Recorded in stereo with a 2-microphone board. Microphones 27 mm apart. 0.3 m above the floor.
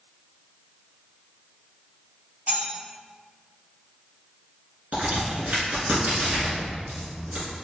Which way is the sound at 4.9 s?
60° right (ahead or behind).